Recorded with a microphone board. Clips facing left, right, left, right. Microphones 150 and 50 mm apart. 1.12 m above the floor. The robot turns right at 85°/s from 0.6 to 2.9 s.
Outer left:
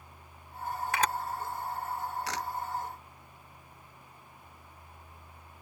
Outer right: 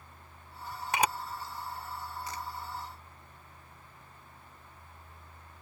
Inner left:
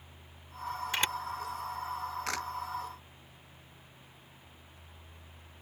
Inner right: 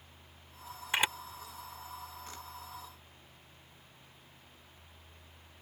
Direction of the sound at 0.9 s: 20° right (ahead or behind).